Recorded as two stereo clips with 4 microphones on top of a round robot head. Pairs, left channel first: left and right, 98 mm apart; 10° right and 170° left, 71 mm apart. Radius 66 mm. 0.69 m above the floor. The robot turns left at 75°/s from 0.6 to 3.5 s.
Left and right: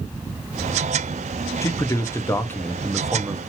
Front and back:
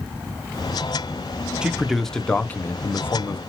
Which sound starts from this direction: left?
A man speaking, at 1.6 s.